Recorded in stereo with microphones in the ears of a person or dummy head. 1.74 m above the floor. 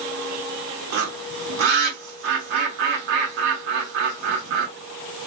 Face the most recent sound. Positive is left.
turn(degrees=-50)  # may be behind; listen again after turning